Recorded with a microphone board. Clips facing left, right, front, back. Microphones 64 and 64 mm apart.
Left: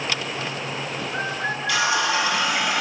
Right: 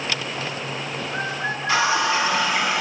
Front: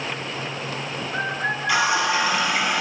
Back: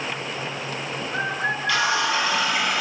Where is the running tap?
60° right, 1.1 m.